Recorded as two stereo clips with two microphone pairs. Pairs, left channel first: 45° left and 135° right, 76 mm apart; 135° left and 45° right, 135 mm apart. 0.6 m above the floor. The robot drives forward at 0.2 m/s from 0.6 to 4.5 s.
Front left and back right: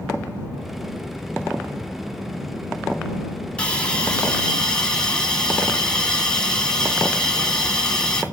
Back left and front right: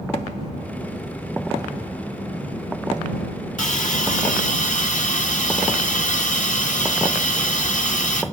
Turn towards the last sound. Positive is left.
turn(degrees=125)